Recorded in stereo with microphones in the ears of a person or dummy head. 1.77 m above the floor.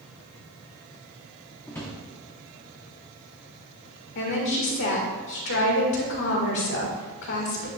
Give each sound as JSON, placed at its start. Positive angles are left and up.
{"t": 1.7, "sound": "a drawer", "side_deg": 10, "distance_m": 0.9}
{"t": 4.2, "sound": "a woman speaking", "side_deg": 60, "distance_m": 1.6}